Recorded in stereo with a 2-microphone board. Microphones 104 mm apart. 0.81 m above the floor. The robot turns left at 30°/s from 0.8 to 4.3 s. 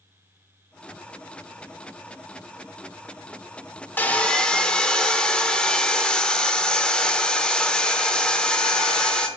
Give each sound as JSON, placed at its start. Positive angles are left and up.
{"t": 4.0, "sound": "sawing", "side_deg": 20, "distance_m": 0.8}